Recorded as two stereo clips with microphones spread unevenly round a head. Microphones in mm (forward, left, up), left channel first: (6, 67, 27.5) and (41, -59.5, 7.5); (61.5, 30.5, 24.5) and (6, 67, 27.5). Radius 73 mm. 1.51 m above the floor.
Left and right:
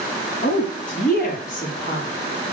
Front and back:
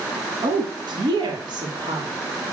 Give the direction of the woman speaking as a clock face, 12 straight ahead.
7 o'clock.